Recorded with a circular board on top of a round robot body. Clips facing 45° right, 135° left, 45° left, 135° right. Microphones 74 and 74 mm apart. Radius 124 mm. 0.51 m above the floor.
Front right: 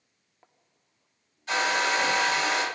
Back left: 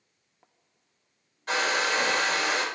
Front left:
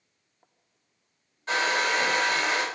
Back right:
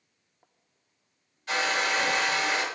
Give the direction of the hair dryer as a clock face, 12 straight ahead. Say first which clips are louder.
Front right 1 dB, front left 2 dB; 9 o'clock.